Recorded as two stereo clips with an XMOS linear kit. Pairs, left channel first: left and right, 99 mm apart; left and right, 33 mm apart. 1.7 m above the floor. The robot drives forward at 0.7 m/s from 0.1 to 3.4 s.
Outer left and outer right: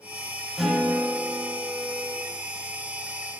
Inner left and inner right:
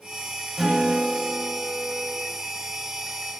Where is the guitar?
Centre (ahead or behind), 5.5 m.